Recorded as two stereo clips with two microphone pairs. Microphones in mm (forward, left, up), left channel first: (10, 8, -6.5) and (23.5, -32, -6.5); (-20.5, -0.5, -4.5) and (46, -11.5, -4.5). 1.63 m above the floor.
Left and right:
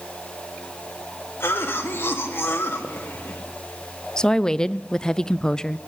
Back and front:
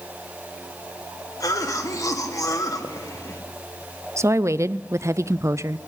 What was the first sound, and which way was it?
A cough, 135° left.